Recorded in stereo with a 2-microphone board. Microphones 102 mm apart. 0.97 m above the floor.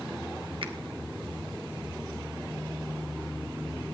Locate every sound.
0.6 s a finger snap: 65° right (ahead or behind), 1.2 m